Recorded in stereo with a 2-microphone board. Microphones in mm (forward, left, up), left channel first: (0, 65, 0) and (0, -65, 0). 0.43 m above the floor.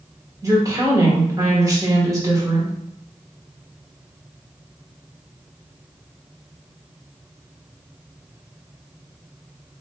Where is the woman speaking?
25° right (ahead or behind), 1.3 m.